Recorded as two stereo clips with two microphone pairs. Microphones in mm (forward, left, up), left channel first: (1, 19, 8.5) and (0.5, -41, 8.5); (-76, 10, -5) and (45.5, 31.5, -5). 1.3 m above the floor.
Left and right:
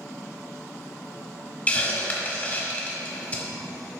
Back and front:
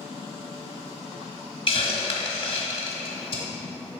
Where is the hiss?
145° left, 1.4 m.